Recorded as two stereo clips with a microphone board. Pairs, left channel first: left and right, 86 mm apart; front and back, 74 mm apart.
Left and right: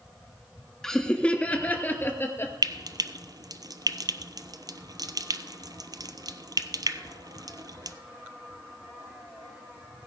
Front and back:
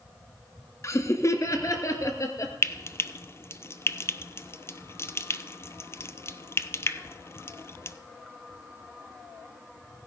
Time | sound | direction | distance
0.8 | laughter | 10° left | 1.4 m
2.6 | frying | 55° right | 0.6 m